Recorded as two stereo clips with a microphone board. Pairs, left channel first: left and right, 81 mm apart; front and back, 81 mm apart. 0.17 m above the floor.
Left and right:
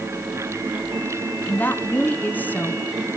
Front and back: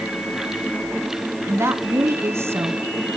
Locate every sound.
1.5 s a woman speaking: 145° left, 1.4 m